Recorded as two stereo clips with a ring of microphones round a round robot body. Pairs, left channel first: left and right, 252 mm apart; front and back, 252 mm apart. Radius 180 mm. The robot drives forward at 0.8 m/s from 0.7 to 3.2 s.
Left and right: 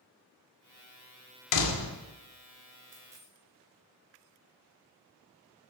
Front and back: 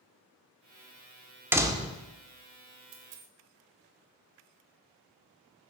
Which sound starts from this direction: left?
A door slam, at 1.5 s.